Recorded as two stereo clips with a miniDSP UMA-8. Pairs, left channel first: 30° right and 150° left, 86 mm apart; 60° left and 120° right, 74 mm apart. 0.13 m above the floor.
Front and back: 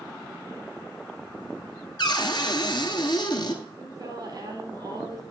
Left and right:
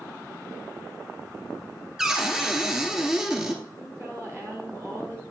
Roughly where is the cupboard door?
Ahead right.